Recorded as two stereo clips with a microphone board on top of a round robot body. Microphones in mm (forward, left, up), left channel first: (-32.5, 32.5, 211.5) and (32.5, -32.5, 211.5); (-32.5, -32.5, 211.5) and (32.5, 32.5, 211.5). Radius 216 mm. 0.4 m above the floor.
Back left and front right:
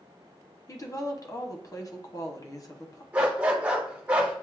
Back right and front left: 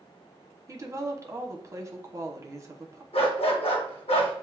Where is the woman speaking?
95° left, 1.2 m.